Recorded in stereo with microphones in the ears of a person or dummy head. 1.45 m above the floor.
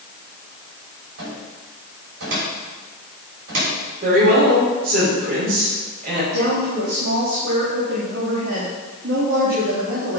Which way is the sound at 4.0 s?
55° right (ahead or behind).